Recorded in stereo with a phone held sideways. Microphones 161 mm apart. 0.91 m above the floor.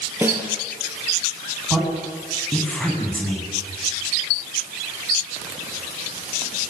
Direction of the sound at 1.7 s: 5° left (ahead or behind).